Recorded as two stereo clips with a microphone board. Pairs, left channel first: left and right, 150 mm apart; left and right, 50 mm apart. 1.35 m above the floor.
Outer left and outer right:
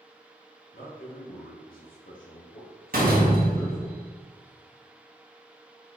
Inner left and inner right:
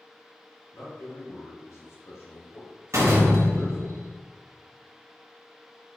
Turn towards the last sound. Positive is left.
turn(degrees=-70)  # may be behind; listen again after turning